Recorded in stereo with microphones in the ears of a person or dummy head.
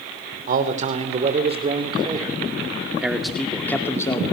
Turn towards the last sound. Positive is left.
turn(degrees=20)  # may be behind; listen again after turning